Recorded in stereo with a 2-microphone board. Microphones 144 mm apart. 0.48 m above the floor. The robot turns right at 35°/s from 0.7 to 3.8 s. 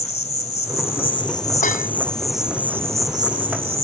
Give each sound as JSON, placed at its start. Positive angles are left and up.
{"t": 0.0, "sound": "an insect", "azimuth_deg": 125}
{"t": 1.6, "sound": "dishes clattering", "side_deg": 75}